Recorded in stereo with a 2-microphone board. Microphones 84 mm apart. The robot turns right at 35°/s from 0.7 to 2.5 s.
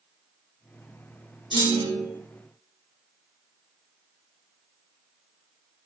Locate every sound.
1.5 s a clunk: 70° right (ahead or behind), 3 m